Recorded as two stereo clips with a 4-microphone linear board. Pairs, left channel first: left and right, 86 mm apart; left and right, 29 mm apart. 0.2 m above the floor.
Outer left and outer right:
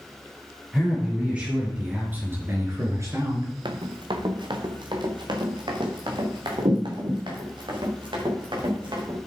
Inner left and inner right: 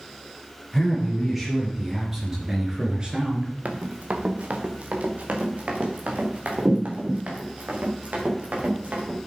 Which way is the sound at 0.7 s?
10° right (ahead or behind).